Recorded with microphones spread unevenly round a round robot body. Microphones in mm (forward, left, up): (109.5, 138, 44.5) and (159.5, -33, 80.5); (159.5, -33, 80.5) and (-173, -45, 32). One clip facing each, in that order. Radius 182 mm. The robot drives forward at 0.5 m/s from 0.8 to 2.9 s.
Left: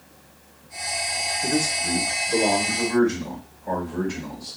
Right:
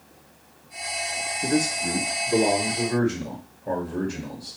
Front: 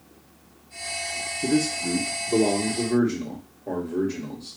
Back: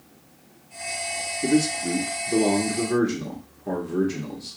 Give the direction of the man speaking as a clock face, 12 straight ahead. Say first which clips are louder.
Right 2 dB, back 2 dB; 3 o'clock.